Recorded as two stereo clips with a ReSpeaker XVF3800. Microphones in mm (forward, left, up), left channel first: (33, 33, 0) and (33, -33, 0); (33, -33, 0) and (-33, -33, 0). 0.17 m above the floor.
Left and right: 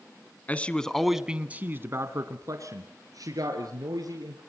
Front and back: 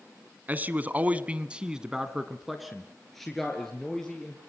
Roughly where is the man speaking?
Behind left.